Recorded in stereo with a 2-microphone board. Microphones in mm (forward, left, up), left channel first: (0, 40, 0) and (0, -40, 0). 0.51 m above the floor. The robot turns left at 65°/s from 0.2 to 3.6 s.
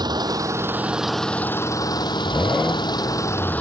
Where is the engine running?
120° right; by 3.6 s 20° left.